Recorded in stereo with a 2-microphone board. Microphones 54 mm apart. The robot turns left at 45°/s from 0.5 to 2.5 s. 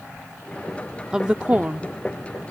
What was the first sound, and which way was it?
A woman speaking, 10° right (ahead or behind).